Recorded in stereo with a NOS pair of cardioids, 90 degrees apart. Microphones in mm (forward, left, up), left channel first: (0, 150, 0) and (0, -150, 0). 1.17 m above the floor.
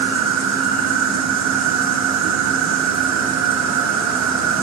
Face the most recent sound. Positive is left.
turn(degrees=-65)